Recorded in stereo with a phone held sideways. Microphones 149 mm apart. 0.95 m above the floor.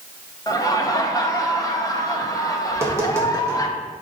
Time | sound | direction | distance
0.5 | laughter | 25° left (ahead or behind) | 0.9 m
2.7 | tapping | 20° right (ahead or behind) | 1.5 m